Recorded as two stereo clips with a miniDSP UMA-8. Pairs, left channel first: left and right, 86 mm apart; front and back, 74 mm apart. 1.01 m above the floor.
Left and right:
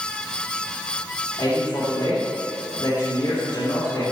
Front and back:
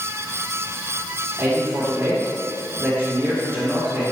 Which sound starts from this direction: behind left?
A man speaking, at 1.4 s.